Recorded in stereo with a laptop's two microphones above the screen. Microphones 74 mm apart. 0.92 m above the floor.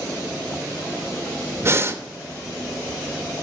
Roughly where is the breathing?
Right.